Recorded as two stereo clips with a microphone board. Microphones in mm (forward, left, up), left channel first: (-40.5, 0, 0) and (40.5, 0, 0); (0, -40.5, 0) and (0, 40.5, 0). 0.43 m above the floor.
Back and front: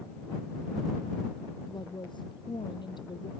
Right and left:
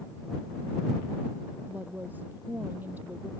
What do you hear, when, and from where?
1.7 s a woman speaking: 160° left